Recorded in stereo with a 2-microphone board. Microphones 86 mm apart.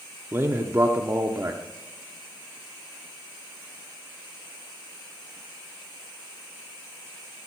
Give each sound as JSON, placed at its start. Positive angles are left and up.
{"t": 0.3, "sound": "a man speaking", "side_deg": -30, "distance_m": 0.8}